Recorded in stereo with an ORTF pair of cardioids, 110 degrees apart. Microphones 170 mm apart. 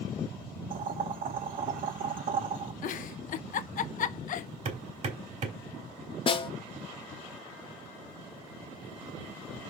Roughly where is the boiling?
Ahead right.